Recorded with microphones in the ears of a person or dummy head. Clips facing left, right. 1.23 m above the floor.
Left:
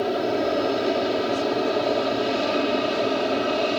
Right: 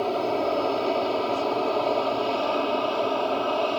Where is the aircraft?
15° left (ahead or behind); by 3.8 s 20° left (ahead or behind).